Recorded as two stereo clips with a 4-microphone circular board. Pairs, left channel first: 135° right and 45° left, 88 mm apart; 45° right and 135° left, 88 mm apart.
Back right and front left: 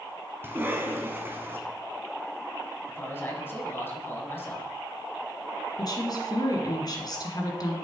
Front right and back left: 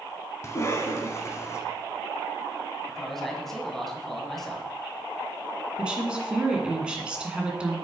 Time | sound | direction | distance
0.4 | a cough | 10° right | 1.5 m
2.9 | a man speaking | 125° right | 1.5 m
5.8 | a woman speaking | 150° right | 1.6 m